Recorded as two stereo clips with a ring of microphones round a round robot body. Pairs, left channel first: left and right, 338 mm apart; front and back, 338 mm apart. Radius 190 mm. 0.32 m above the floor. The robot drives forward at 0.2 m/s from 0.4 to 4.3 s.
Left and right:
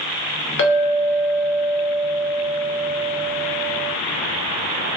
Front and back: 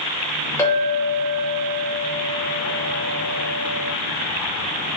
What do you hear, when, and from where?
0.6 s a clink: 75° left, 0.6 m; by 3.9 s 150° left, 0.8 m